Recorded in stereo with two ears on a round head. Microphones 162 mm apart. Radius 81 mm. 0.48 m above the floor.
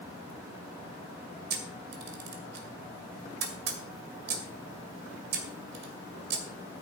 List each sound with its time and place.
1.5 s a camera shutter: 60° right (ahead or behind), 2 m